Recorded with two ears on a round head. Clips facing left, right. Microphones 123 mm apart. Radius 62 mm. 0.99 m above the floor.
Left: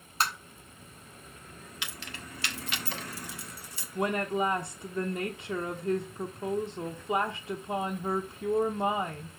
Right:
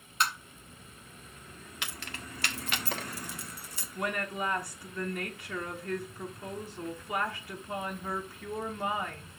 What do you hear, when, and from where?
0.2 s tapping: 30° left (ahead or behind), 1.8 m
1.8 s keys jangling: 40° right (ahead or behind), 1.3 m
4.0 s a woman speaking: 20° left (ahead or behind), 0.9 m